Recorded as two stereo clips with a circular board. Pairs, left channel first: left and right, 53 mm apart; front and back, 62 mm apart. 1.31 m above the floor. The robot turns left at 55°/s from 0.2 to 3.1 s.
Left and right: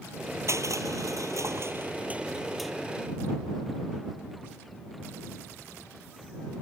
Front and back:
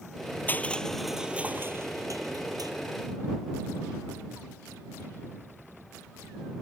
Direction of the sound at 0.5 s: 60° right.